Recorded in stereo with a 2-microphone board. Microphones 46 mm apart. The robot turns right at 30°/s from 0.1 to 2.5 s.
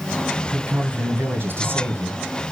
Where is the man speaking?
145° right, 1.9 m; by 2.2 s 95° right, 1.9 m.